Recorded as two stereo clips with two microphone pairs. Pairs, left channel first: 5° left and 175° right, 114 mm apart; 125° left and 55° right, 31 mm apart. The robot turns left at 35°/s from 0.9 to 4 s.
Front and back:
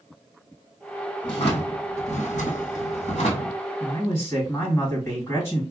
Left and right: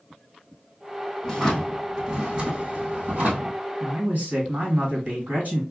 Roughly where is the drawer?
Ahead left.